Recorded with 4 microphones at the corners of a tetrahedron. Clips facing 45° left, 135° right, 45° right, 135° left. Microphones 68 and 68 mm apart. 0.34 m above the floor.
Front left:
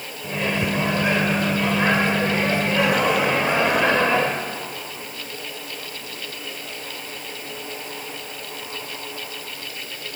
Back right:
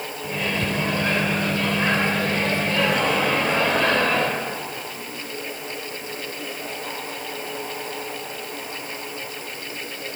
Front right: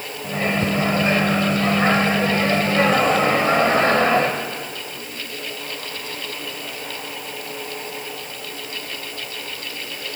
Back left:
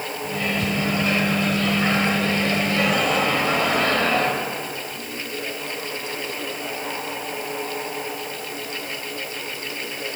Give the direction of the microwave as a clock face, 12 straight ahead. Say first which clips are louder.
Front left 2 dB, front right 4 dB; 1 o'clock.